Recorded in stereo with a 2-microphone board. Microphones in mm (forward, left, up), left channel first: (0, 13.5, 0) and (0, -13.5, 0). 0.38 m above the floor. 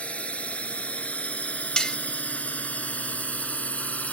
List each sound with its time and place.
0.0 s a drone: 60° left (ahead or behind); by 4.1 s 75° left (ahead or behind)
1.8 s cutlery clinking: 40° left (ahead or behind)